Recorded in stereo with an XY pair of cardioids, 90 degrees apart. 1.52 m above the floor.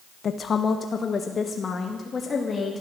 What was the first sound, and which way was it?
A woman speaking, 55° left.